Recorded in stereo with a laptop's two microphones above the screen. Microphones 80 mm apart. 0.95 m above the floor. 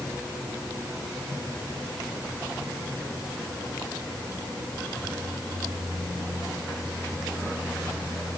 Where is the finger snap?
No finger snap in this recording.